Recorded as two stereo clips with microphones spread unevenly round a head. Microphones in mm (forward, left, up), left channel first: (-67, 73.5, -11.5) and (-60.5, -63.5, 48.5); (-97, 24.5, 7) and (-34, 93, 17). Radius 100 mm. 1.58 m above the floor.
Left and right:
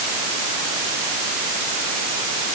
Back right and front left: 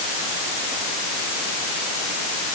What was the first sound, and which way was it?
Only background noise.